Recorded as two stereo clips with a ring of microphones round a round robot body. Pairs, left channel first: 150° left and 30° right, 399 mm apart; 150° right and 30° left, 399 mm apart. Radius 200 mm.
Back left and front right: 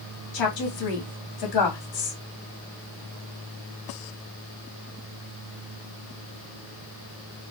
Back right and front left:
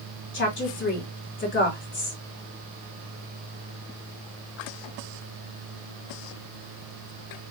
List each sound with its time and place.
0.3 s a woman speaking: 155° left, 1.7 m